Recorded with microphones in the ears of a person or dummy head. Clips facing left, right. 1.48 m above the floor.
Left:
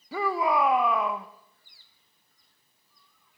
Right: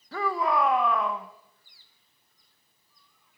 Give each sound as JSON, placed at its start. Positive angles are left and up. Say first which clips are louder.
{"t": 0.1, "sound": "a shout", "louder": "left 1 dB", "side_deg": 10, "distance_m": 0.7}